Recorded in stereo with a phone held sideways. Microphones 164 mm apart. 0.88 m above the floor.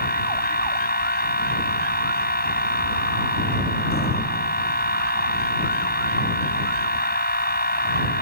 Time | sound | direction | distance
0.0 | a machine running | 75° left (ahead or behind) | ?